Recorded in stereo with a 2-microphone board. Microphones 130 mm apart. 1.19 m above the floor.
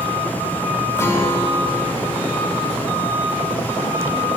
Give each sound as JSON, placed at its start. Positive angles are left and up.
{"t": 1.0, "sound": "a guitar", "side_deg": 20, "distance_m": 3.5}